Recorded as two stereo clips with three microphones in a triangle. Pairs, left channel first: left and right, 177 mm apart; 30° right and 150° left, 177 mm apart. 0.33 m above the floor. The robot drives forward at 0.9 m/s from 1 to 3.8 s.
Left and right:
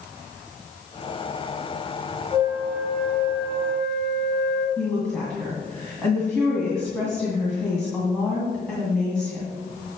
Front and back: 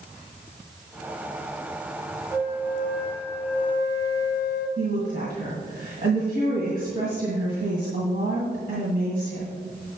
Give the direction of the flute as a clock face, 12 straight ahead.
7 o'clock.